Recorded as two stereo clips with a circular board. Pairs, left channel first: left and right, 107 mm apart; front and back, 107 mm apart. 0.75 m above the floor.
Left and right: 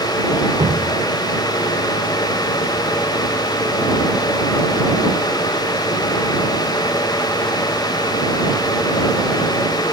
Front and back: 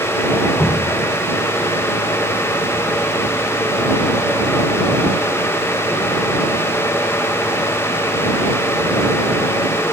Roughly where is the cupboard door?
I don't hear a cupboard door.